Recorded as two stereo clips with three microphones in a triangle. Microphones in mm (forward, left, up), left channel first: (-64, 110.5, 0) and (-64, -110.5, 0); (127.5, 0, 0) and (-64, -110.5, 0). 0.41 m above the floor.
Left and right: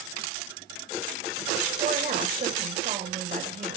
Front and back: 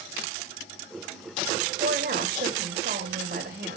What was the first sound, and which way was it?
A woman speaking, 130° right.